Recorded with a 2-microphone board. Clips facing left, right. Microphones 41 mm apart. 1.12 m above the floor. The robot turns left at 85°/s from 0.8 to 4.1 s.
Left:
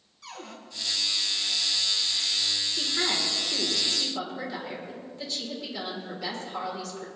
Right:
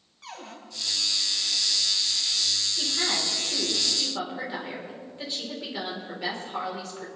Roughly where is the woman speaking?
Left.